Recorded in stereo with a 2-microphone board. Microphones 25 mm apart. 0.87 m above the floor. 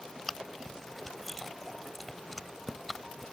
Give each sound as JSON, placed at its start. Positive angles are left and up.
{"t": 0.3, "sound": "chewing", "side_deg": 5}